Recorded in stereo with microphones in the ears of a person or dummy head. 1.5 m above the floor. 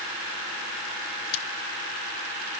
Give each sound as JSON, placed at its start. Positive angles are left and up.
{"t": 1.3, "sound": "cutlery clinking", "side_deg": 20}